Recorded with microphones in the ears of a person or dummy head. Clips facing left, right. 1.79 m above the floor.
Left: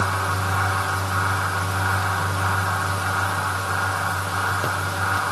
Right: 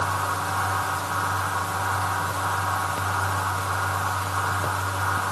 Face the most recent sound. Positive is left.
No sound to turn to.